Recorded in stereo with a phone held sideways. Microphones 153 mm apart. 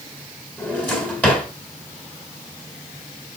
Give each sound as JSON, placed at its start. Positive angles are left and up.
{"t": 0.6, "sound": "a drawer", "side_deg": 10, "distance_m": 3.5}